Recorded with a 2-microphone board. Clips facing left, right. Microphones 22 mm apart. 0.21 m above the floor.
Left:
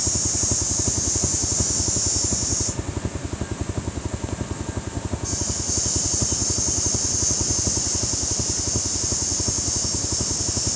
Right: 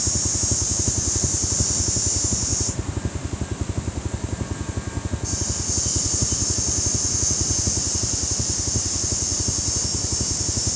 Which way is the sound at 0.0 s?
35° left (ahead or behind).